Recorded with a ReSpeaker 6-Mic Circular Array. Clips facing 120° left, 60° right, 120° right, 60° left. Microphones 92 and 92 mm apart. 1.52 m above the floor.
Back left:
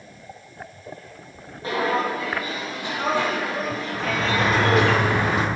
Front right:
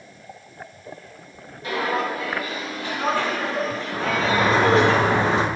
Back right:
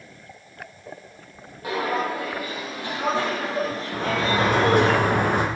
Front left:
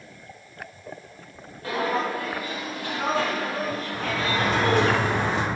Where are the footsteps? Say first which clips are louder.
Back left 1 dB, back right 1 dB; 170° left, 2.5 m; by 4.9 s 110° right, 1.7 m.